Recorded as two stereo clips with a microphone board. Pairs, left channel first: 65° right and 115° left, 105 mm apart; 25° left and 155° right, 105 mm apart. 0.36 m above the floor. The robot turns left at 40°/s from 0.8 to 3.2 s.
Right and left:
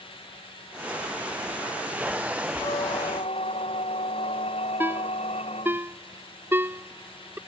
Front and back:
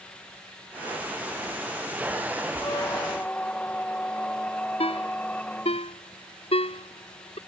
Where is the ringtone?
45° left.